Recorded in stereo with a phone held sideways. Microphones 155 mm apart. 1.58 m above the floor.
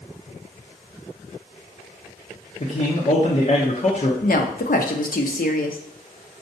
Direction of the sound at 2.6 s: 45° left (ahead or behind).